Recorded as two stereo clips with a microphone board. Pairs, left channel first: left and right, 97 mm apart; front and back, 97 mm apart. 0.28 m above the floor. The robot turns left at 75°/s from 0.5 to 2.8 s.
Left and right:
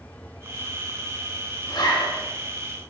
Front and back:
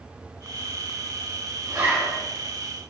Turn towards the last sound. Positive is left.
turn(degrees=45)